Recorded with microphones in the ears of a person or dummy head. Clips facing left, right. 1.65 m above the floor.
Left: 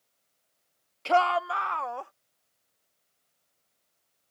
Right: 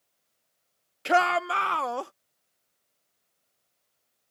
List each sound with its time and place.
1.1 s a shout: 25° right (ahead or behind); by 2.1 s 60° right (ahead or behind)